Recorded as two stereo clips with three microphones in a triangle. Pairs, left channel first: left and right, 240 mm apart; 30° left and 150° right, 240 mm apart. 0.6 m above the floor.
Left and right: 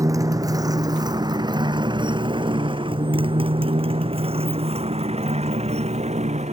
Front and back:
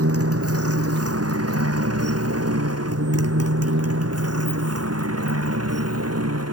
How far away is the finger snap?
I don't hear a finger snap.